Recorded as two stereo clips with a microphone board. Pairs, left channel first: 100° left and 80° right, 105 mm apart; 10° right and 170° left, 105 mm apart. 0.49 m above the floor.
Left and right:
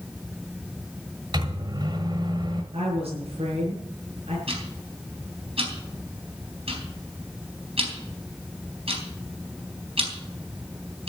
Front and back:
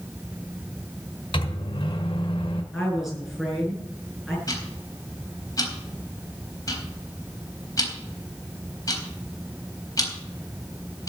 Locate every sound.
1.3 s a microwave: 40° right, 1.5 m
2.7 s a woman speaking: 100° right, 7 m
4.5 s ticking: 65° right, 4 m